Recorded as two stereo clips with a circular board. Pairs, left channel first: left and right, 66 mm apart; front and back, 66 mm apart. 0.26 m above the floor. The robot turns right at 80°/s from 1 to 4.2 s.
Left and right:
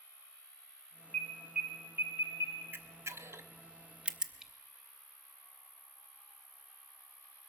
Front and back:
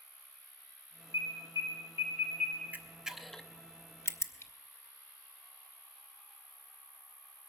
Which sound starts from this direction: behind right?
A camera shutter, at 2.7 s.